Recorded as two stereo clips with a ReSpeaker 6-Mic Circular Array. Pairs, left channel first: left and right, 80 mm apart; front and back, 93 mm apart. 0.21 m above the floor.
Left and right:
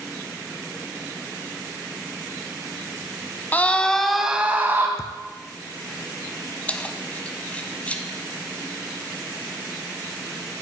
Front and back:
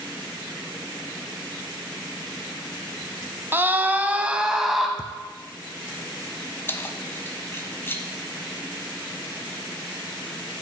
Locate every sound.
3.5 s a scream: 135° left, 1.2 m; by 4.9 s 90° right, 1.2 m
5.0 s a thud: 35° right, 0.9 m
6.7 s keys jangling: 35° left, 1.1 m